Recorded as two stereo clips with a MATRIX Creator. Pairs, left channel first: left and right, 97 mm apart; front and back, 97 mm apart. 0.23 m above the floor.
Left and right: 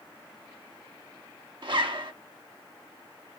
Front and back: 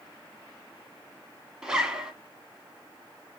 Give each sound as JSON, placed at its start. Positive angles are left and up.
{"t": 1.6, "sound": "a zipper", "azimuth_deg": -100, "distance_m": 0.6}